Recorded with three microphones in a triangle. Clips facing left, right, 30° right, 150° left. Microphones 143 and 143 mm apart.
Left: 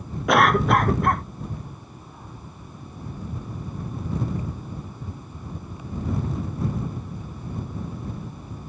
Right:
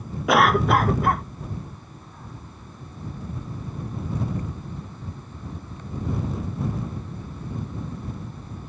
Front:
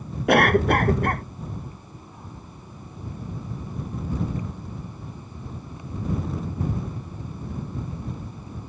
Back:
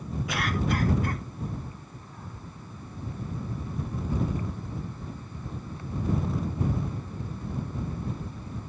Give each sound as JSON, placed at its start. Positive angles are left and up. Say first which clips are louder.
{"t": 0.3, "sound": "a cough", "louder": "even, front 12 dB", "azimuth_deg": 0}